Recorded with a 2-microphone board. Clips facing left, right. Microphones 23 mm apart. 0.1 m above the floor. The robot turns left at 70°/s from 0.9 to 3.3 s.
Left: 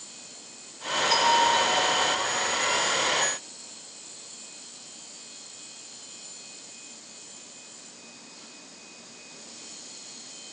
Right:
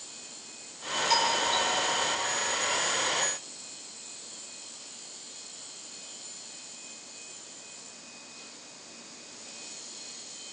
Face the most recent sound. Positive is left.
turn(degrees=160)